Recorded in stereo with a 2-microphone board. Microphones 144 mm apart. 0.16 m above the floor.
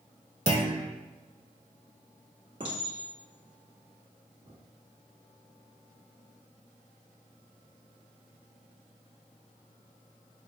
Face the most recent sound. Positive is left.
turn(degrees=-40)  # may be behind; listen again after turning